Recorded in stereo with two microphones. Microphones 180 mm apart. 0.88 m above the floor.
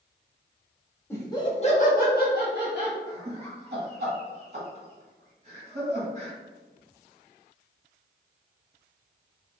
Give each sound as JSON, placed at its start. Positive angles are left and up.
{"t": 1.1, "sound": "laughter", "side_deg": 15, "distance_m": 1.2}
{"t": 3.1, "sound": "laughter", "side_deg": -40, "distance_m": 1.4}